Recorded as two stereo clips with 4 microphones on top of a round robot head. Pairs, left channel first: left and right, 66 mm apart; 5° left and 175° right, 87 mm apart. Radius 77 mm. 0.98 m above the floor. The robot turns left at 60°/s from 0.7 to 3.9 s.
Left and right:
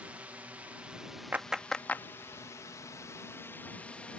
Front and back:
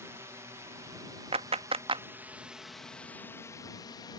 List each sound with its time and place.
0.0 s a drone: 145° right; by 4.2 s 25° left
1.3 s a clap: 160° right; by 2.0 s 155° left